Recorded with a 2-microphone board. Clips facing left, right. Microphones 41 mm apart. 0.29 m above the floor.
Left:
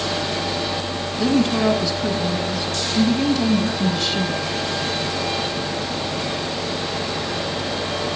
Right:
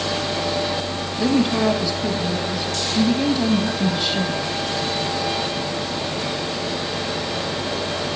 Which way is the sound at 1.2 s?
10° right (ahead or behind).